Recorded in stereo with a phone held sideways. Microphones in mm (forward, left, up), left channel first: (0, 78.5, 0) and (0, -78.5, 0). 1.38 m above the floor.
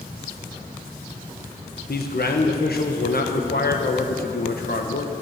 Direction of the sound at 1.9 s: 80° left.